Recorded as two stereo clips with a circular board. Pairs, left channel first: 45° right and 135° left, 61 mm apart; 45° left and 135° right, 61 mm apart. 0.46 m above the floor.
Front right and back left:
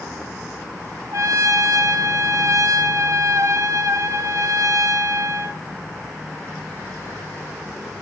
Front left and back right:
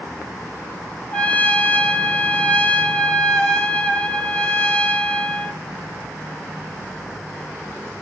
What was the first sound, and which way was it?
A trumpet, 110° left.